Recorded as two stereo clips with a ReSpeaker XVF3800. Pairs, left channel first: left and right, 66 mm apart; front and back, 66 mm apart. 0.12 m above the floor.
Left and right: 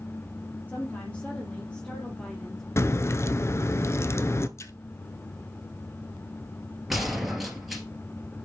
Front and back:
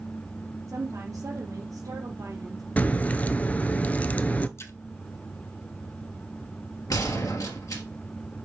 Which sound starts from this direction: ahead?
A gunshot, at 6.9 s.